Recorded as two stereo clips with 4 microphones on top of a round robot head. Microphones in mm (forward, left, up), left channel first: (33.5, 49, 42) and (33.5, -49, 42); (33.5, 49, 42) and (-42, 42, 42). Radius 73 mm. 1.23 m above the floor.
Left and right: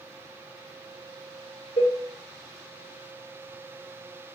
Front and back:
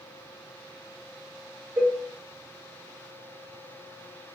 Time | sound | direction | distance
1.8 | a cowbell | 115° left | 1.3 m